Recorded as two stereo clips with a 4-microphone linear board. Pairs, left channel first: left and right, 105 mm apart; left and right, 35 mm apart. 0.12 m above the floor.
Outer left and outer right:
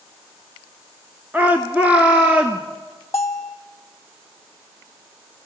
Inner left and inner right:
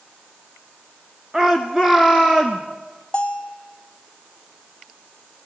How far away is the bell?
About 1.7 m.